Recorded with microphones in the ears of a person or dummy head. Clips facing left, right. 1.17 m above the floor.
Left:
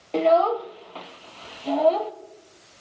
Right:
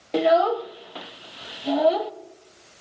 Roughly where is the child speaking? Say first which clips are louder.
Even; centre.